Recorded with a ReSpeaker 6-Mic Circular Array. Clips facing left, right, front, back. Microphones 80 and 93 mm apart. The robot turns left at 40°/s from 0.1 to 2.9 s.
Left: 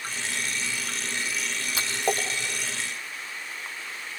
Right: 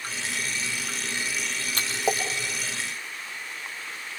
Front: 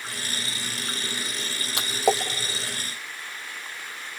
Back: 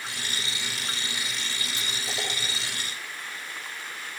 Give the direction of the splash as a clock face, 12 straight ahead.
12 o'clock.